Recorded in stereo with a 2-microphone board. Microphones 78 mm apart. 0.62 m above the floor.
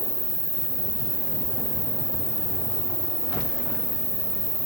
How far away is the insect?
About 1.4 m.